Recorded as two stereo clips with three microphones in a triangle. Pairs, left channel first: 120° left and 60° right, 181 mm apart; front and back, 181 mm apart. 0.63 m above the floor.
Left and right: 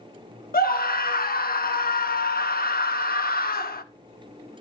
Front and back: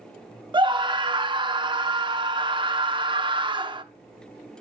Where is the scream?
125° left, 0.9 m.